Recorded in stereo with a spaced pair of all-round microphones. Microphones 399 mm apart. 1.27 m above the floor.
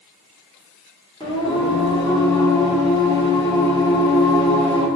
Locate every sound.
1.2 s singing: 10° left (ahead or behind), 1.2 m